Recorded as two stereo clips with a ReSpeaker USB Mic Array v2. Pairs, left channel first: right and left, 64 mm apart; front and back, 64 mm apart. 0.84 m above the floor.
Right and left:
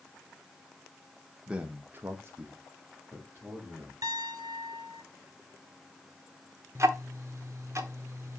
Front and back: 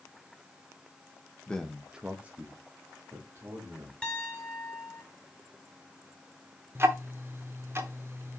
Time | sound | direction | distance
1.5 | a man speaking | 45° left | 0.8 m
4.0 | a piano | 75° left | 1.5 m
6.8 | ticking | 130° left | 0.9 m